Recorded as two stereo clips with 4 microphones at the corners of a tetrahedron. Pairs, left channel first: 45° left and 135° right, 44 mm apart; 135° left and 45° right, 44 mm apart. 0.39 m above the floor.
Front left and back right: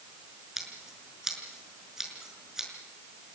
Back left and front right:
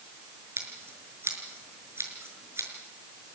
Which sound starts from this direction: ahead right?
Scissors, at 0.6 s.